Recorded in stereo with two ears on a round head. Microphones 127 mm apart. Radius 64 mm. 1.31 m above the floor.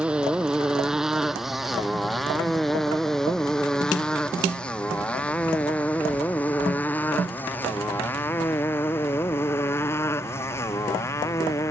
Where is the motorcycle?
5° right (ahead or behind); by 11.7 s 20° left (ahead or behind).